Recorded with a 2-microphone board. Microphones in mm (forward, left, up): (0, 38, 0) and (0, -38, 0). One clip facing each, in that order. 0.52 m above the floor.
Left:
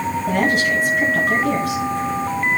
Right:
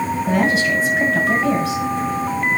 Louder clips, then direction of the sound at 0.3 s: Even; 85° right.